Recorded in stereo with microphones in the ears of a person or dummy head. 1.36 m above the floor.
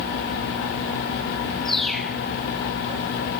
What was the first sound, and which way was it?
A bird, centre (ahead or behind).